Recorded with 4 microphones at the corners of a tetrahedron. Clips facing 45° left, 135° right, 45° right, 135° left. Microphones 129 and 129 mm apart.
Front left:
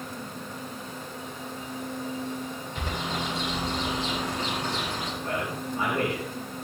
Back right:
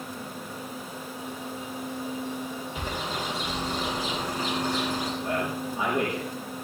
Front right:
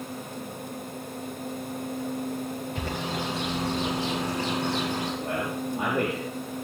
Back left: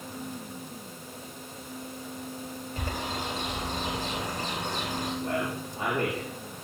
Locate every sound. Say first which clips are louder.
2.8 s a bird: front left 2 dB, even; 55° right, 10 m
5.2 s a man speaking: back right 2 dB, front right 1 dB; 55° right, 6.5 m